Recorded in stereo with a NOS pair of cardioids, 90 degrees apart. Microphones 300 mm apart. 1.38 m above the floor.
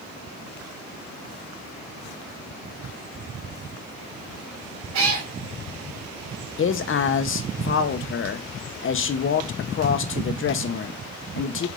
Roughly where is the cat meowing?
Right.